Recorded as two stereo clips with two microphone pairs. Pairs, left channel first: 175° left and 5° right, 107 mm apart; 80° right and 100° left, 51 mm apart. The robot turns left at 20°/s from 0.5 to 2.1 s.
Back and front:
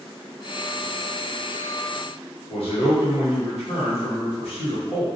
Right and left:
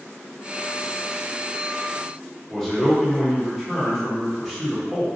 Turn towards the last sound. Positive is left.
turn(degrees=-170)